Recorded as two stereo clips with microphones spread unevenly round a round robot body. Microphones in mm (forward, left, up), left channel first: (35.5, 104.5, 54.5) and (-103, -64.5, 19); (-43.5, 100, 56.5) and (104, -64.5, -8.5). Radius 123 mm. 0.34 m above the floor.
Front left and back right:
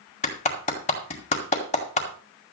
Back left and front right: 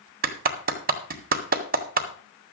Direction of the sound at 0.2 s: 15° right.